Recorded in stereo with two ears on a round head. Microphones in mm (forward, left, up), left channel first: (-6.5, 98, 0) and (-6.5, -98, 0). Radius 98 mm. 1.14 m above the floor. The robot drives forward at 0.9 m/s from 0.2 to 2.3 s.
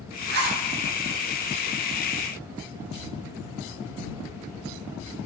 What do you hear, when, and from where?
0.3 s a zipper: 50° right (ahead or behind), 1.1 m; by 0.6 s 45° right (ahead or behind), 1.3 m